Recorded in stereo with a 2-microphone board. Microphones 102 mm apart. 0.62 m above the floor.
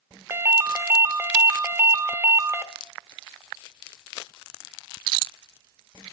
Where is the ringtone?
25° right (ahead or behind), 0.6 m.